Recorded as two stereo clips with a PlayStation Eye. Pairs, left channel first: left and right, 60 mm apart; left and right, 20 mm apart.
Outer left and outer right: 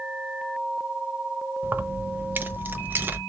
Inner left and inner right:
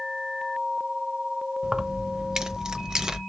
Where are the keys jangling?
35° right (ahead or behind), 0.7 m.